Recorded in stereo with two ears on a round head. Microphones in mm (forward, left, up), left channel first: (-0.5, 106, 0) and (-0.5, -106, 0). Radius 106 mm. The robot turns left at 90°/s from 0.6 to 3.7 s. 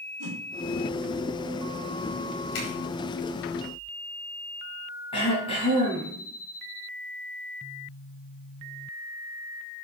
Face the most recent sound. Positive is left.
turn(degrees=25)  # may be behind; listen again after turning